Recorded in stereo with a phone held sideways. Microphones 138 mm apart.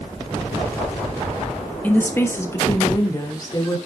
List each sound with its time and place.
1.8 s a woman speaking: 10° left (ahead or behind), 1.6 m; by 3.8 s 30° left (ahead or behind), 2.5 m